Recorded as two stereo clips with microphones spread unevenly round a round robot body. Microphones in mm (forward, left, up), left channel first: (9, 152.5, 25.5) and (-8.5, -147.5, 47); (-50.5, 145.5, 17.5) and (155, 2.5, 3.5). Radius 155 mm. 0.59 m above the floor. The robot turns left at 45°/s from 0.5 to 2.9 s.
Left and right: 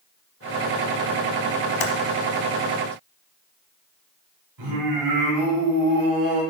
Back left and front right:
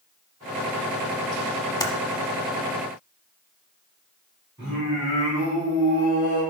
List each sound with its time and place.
1.8 s typing on a keyboard: 70° left, 1.2 m; by 1.9 s 65° left, 1.2 m
4.6 s singing: 110° right, 3 m